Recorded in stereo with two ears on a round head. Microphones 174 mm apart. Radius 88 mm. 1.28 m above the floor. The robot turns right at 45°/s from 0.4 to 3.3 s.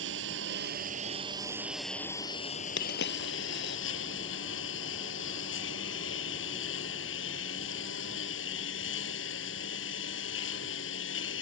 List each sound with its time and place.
0.0 s a lawn mower: 65° right; by 11.4 s 65° left
2.8 s a dropped coin: 60° left (ahead or behind)